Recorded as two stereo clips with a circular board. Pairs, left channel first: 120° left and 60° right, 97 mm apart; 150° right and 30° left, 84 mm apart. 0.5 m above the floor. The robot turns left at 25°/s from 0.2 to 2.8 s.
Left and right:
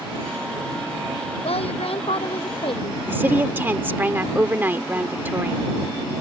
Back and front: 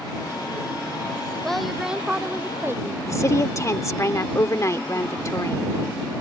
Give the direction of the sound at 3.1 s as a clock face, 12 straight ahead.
4 o'clock.